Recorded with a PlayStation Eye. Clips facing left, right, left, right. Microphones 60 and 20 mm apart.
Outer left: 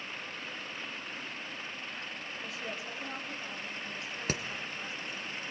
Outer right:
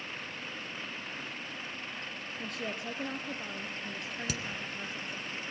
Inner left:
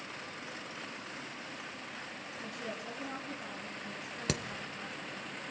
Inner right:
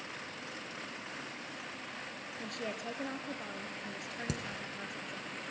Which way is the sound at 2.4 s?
55° right (ahead or behind).